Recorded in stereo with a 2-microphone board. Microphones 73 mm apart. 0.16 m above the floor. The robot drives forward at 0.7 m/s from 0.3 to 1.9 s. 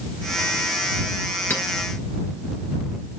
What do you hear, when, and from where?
1.5 s a clink: 30° left (ahead or behind), 1.4 m